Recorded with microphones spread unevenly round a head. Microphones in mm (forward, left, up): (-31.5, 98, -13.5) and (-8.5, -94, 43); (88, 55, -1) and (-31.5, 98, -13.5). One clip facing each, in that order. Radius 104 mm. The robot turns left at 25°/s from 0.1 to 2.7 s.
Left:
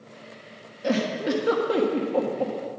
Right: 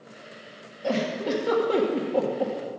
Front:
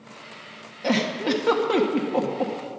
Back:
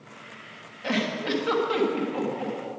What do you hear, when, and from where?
0.8 s a giggle: 20° left, 1.4 m; by 2.5 s 20° right, 1.4 m